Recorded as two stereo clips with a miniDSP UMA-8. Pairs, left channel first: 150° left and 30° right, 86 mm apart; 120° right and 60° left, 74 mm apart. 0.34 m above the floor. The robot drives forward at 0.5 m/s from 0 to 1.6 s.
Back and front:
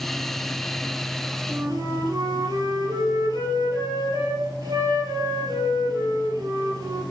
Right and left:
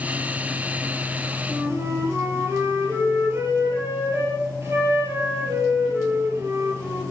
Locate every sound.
1.5 s a flute: 10° left, 5.5 m